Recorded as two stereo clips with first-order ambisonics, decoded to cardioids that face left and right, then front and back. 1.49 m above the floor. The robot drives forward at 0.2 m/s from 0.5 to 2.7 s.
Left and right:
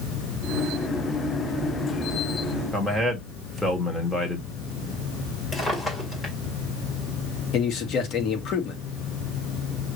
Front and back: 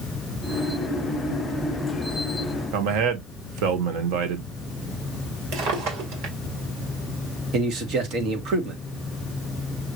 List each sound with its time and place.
2.7 s a man speaking: 175° left, 1.5 m
5.5 s a drawer: 165° left, 2 m
7.5 s a man speaking: 135° left, 1.5 m